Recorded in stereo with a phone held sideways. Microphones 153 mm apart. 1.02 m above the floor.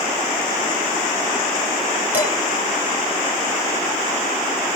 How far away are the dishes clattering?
About 2 m.